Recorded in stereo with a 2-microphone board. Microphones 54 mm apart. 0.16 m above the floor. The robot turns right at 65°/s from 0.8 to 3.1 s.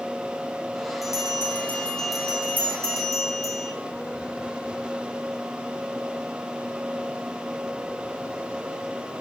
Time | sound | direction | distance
1.0 | a bell | 110° left | 6 m